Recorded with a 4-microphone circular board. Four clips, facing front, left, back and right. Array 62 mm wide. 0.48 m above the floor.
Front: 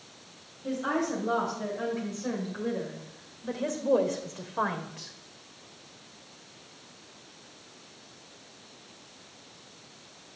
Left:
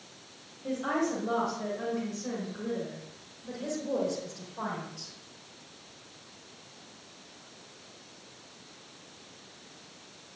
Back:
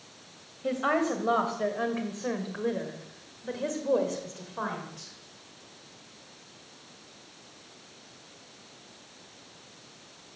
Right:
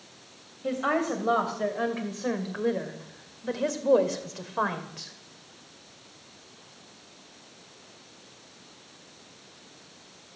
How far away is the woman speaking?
About 2.5 m.